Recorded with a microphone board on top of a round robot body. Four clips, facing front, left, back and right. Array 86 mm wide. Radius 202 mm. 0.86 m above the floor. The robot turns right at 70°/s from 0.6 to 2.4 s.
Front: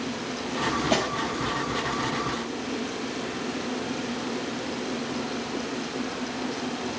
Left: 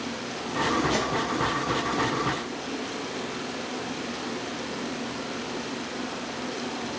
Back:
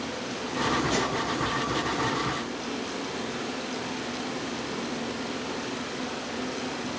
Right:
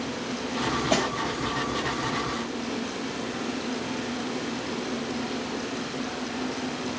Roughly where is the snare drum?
Ahead right.